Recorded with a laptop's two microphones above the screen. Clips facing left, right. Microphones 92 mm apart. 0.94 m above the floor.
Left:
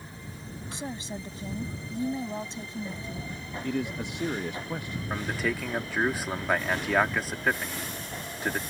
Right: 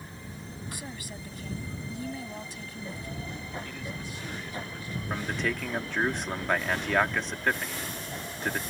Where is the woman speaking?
25° left (ahead or behind).